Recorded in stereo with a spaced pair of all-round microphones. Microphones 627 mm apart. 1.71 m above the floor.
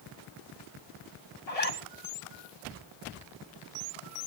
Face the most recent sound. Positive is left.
turn(degrees=75)  # may be behind; listen again after turning